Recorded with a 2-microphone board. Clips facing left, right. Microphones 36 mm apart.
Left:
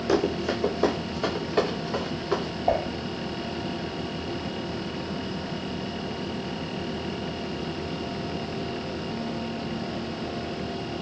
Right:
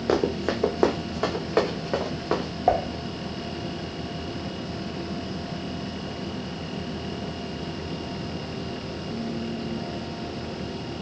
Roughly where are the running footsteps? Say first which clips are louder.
Right 1 dB; right.